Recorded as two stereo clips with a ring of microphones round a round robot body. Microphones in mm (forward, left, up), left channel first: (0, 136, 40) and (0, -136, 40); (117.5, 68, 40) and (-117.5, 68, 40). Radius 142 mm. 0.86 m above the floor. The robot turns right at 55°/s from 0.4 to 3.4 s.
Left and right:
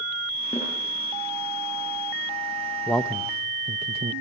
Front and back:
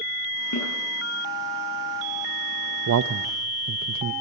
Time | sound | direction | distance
0.5 | a snare drum | 5° left | 8.5 m
2.9 | a man speaking | 175° left | 0.5 m